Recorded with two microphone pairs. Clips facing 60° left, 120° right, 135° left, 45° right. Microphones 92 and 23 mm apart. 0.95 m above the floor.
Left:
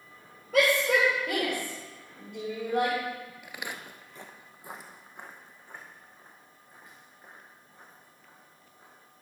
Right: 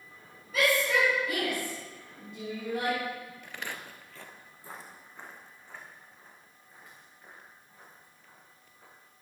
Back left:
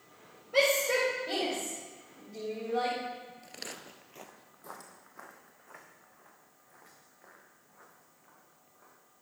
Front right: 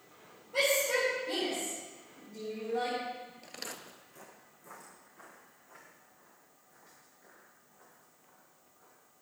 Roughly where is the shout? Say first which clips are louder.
Left 3 dB, back left 2 dB; left.